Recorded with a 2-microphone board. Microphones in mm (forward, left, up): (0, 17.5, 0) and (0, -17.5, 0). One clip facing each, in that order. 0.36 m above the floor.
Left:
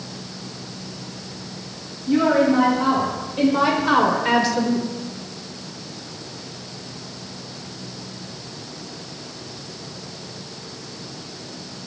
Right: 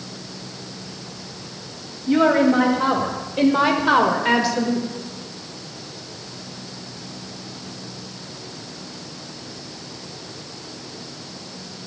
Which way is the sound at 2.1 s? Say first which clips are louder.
Right 1 dB; 35° right (ahead or behind).